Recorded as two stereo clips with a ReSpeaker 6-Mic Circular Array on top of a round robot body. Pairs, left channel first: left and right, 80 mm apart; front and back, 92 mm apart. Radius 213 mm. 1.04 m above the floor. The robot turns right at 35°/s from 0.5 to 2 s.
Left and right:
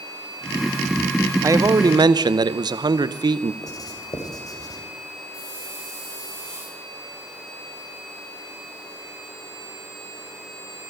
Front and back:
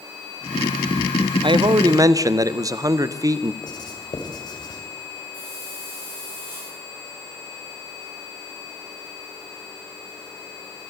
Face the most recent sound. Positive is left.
turn(degrees=145)